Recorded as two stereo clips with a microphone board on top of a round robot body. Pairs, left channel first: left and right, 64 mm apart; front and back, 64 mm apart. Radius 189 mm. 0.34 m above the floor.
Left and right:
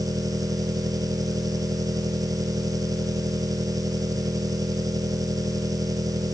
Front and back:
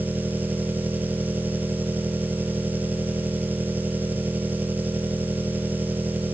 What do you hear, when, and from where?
0.0 s an engine running: 115° right